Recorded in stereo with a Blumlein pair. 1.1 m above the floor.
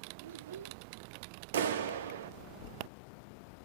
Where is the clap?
60° right, 1.0 m.